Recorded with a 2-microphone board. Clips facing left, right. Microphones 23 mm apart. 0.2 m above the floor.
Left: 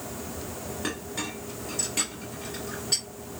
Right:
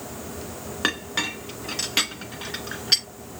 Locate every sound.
0.8 s a clink: 60° right (ahead or behind), 1.9 m